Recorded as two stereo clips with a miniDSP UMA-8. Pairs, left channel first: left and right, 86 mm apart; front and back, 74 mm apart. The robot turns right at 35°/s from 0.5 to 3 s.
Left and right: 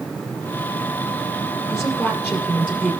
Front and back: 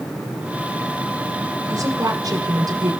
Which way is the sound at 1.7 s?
170° left.